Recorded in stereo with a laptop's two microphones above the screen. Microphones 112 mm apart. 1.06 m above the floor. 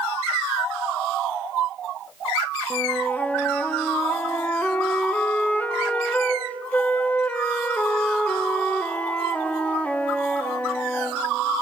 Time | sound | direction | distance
2.7 | a flute | 10° left (ahead or behind) | 0.7 m